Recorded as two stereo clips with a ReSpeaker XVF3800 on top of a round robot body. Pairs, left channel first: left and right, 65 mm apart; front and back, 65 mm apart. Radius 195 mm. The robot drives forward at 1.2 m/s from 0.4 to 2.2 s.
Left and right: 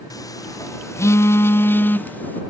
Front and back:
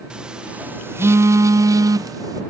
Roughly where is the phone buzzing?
Left.